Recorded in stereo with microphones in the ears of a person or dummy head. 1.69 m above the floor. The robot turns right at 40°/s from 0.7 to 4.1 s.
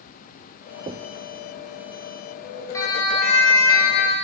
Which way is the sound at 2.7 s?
20° left (ahead or behind).